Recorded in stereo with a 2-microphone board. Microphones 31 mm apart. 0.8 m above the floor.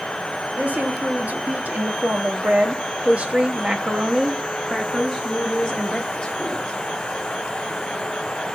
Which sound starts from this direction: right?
A woman speaking, at 0.5 s.